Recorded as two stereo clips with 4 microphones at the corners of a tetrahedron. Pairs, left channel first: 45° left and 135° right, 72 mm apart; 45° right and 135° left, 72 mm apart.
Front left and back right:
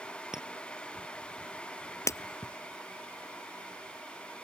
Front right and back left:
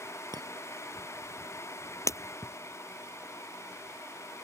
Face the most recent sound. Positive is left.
turn(degrees=0)